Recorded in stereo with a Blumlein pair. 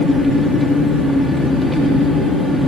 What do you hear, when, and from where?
0.0 s an engine running: straight ahead, 3 m